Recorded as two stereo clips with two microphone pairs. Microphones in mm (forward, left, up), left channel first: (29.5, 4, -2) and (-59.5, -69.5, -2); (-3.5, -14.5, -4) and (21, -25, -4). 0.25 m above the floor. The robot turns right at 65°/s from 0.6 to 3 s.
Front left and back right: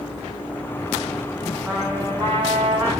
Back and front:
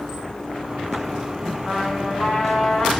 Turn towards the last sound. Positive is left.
turn(degrees=-125)